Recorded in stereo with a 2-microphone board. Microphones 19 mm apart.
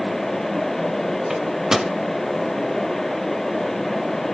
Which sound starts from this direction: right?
A microwave, at 1.3 s.